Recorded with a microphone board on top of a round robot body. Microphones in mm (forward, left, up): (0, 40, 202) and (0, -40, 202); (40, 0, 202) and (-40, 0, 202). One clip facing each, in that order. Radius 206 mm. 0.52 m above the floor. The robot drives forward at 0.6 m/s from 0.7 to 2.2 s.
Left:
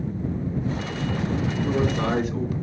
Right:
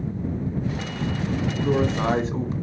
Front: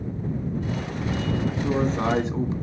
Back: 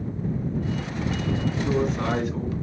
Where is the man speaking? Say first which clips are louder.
Right 3 dB, front 1 dB; 30° right, 1.1 m; by 2.5 s 50° right, 0.9 m.